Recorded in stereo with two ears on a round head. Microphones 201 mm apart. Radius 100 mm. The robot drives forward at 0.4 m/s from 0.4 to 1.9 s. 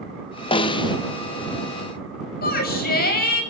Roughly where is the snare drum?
Left.